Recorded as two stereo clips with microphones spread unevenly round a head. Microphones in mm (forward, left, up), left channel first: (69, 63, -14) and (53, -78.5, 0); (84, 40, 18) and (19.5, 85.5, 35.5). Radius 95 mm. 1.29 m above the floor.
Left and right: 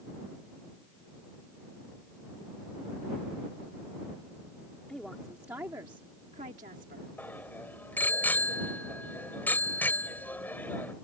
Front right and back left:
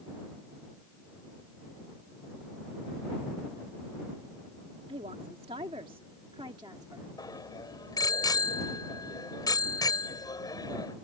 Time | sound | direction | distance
4.9 | a woman speaking | 170° left | ?
7.2 | a bicycle bell | 5° left | ?